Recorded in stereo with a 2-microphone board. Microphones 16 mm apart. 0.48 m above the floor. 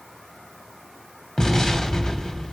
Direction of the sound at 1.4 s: 40° left (ahead or behind).